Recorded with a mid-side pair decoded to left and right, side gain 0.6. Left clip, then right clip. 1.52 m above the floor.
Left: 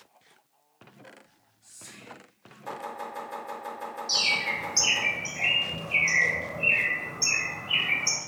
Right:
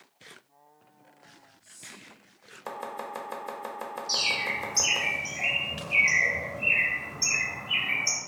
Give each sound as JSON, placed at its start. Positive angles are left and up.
{"t": 1.2, "sound": "whispering", "azimuth_deg": 20, "distance_m": 0.9}
{"t": 2.7, "sound": "chopping", "azimuth_deg": -45, "distance_m": 0.6}
{"t": 4.1, "sound": "a bird", "azimuth_deg": 15, "distance_m": 1.1}